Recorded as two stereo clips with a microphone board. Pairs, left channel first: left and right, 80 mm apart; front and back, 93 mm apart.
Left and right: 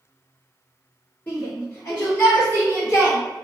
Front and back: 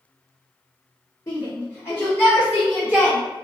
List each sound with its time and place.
1.3 s a shout: 35° left, 1.6 m; by 3.2 s 100° left, 1.2 m